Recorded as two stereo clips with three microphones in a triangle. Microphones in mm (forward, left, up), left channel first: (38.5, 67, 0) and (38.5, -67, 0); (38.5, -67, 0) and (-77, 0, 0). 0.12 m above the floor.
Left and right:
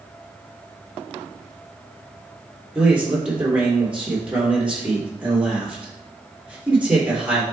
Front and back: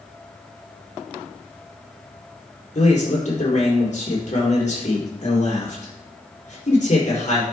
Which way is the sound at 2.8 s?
10° right.